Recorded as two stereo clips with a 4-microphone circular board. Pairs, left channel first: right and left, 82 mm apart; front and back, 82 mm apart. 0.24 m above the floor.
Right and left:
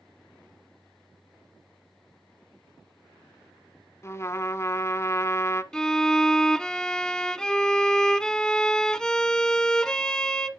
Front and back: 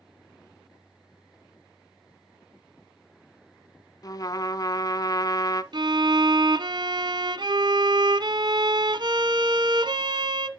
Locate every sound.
4.0 s a trumpet: 40° right, 0.9 m
5.7 s a violin: 170° right, 0.8 m